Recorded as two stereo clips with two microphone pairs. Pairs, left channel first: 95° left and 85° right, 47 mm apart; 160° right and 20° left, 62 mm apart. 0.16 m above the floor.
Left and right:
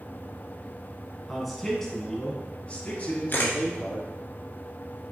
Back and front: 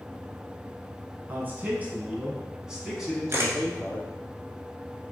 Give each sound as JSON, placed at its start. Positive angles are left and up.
{"t": 1.3, "sound": "a man speaking", "azimuth_deg": 0, "distance_m": 1.2}
{"t": 3.3, "sound": "a camera shutter", "azimuth_deg": 60, "distance_m": 1.1}